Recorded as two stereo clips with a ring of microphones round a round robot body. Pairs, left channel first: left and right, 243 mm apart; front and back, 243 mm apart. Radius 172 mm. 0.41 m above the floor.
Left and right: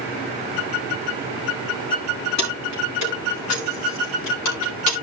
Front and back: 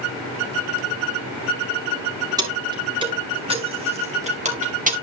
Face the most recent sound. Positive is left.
turn(degrees=125)